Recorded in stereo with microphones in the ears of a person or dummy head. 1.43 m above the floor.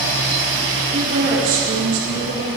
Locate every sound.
0.9 s a woman speaking: 40° right (ahead or behind), 4.5 m